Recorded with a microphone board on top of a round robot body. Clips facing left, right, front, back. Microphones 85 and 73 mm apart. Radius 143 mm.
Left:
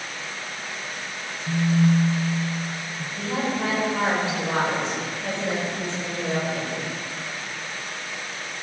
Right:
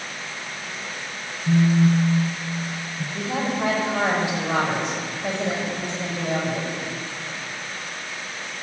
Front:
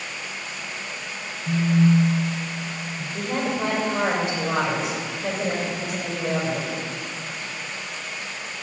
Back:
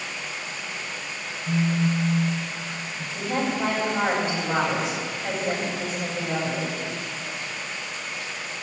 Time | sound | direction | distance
1.5 | a phone buzzing | 95° right | 1.0 m
3.1 | a woman speaking | 15° right | 7 m